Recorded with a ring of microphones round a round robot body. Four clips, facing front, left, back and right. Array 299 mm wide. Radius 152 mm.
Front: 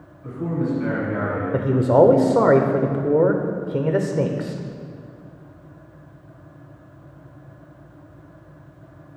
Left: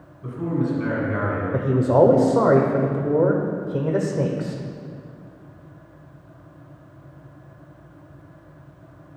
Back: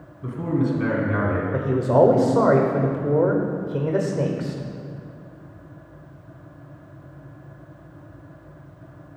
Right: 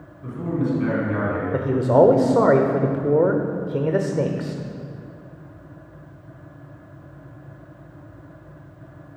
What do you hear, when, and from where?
0.2 s a man speaking: 175° left, 3 m; by 1.4 s 170° right, 3.5 m
1.5 s a man speaking: 35° right, 1.0 m